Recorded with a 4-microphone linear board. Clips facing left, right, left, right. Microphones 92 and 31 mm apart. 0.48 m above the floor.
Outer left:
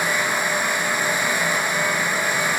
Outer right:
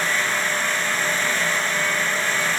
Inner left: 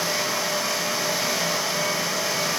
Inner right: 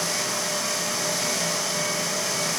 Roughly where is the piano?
No piano in this recording.